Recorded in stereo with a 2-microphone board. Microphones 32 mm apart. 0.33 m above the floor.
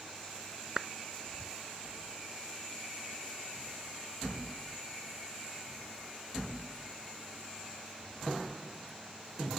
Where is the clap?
20° right (ahead or behind).